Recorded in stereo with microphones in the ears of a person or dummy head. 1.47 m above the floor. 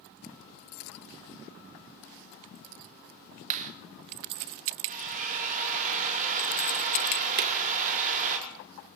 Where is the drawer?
50° right (ahead or behind), 2 m.